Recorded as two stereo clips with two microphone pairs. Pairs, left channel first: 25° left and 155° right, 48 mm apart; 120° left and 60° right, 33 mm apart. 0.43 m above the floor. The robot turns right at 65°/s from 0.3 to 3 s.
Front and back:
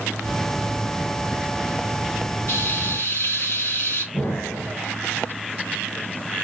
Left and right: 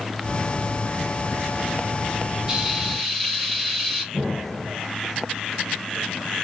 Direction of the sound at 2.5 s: 10° left.